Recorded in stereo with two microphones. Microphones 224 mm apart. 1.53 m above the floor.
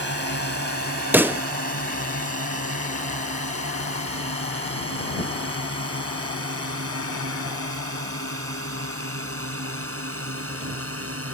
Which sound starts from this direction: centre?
A pop, at 1.1 s.